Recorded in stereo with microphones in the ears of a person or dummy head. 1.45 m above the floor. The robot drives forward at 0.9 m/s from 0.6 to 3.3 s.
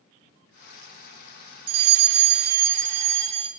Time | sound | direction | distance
1.7 | a fire alarm | 45° right (ahead or behind) | 1.0 m